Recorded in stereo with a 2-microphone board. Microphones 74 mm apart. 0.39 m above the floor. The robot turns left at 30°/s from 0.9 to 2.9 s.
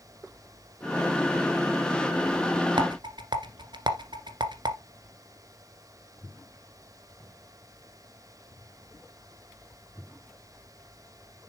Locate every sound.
2.8 s a rattle: 90° right, 1.4 m; by 4.8 s 85° right, 1.4 m